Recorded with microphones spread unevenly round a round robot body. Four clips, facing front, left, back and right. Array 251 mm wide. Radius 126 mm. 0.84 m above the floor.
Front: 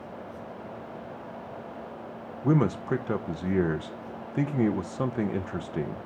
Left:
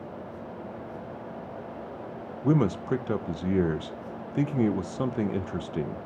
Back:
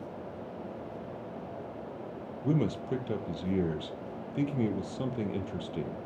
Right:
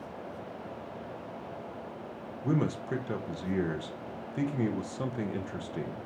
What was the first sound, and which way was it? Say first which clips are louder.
A man speaking: left 6 dB, front 5 dB; 55° left.